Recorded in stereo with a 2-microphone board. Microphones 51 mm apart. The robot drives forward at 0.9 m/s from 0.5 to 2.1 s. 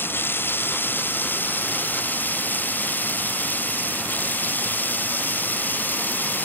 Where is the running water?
45° left (ahead or behind); by 6.5 s 35° left (ahead or behind).